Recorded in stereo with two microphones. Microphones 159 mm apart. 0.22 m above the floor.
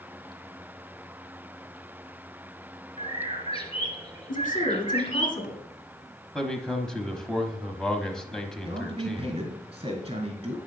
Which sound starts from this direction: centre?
A man speaking, at 6.3 s.